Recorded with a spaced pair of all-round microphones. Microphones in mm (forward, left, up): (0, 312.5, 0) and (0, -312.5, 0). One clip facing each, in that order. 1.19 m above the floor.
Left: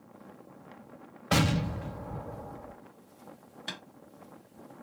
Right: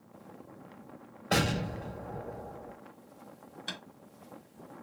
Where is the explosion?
35° left (ahead or behind), 0.6 m.